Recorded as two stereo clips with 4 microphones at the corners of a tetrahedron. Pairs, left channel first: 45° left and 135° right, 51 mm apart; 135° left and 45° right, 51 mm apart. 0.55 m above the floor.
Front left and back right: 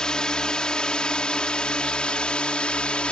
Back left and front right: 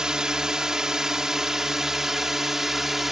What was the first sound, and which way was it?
A drone, 5° left.